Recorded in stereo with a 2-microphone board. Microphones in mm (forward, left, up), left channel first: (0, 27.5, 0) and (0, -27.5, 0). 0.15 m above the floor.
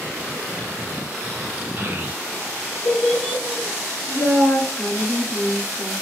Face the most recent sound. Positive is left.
turn(degrees=-5)  # may be behind; listen again after turning